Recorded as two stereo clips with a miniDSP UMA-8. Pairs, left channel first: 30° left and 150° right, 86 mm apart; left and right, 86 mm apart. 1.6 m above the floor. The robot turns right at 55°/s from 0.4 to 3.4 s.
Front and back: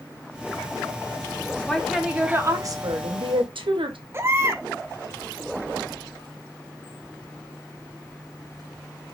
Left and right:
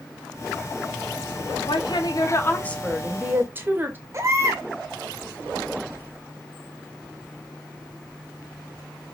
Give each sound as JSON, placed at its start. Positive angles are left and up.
{"t": 1.7, "sound": "a woman speaking", "azimuth_deg": 110, "distance_m": 0.9}
{"t": 4.1, "sound": "a baby crying", "azimuth_deg": -115, "distance_m": 0.7}